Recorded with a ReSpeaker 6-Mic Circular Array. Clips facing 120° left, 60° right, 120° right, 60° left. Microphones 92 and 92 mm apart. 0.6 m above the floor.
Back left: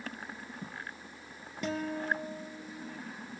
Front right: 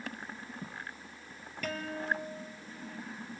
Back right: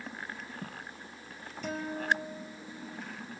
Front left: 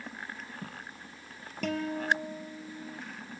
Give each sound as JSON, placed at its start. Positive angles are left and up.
{"t": 1.6, "sound": "a guitar", "azimuth_deg": 55, "distance_m": 2.5}